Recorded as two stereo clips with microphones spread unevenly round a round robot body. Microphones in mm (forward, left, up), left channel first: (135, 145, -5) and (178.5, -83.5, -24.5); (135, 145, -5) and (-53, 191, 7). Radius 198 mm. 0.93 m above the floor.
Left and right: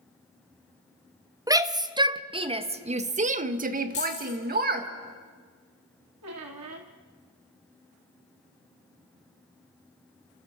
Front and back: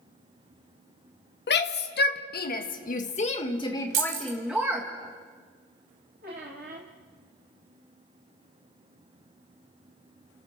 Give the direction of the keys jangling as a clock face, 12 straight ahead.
6 o'clock.